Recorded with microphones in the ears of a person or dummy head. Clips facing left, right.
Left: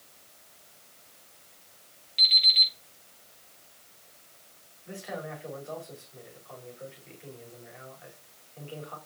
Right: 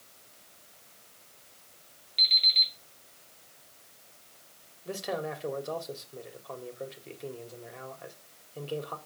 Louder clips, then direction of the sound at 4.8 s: Right 4 dB; 55° right (ahead or behind).